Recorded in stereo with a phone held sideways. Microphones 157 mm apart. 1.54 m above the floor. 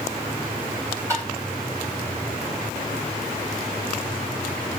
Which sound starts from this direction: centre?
Tapping, at 1.1 s.